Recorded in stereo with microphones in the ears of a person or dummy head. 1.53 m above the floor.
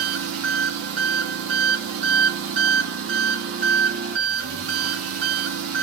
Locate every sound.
0.0 s an engine running: 55° right (ahead or behind), 0.7 m